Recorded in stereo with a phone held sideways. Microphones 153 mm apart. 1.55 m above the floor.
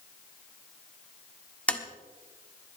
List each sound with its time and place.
1.7 s tapping: 10° left (ahead or behind), 1.3 m